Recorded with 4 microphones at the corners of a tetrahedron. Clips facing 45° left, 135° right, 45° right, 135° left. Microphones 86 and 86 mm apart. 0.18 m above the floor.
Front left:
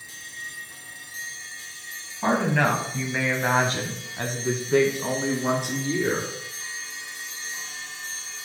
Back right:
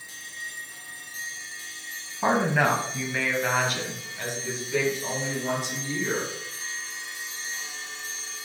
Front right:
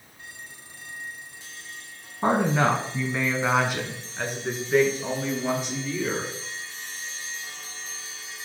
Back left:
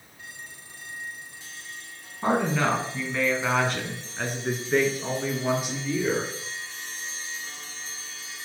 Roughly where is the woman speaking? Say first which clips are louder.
Even, front right 2 dB; right.